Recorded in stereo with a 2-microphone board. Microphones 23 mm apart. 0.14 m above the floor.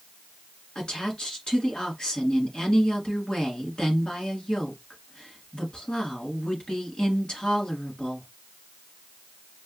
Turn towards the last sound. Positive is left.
turn(degrees=40)  # may be behind; listen again after turning